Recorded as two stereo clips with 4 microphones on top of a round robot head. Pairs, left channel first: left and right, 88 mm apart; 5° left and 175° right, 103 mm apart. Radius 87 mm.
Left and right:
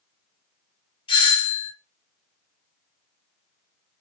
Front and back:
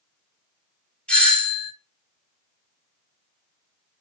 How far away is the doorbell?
About 1.4 m.